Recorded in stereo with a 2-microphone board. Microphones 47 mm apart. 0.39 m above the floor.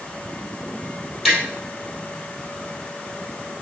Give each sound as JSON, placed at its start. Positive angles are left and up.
{"t": 1.2, "sound": "tapping", "side_deg": -5, "distance_m": 2.0}